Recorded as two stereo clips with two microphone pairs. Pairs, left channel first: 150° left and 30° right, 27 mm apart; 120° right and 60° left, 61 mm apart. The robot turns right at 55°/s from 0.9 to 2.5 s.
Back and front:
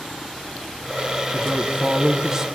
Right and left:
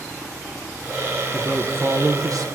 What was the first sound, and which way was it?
A woman speaking, 15° right.